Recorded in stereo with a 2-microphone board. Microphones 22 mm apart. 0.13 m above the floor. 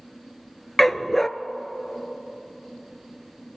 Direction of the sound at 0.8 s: 15° left (ahead or behind).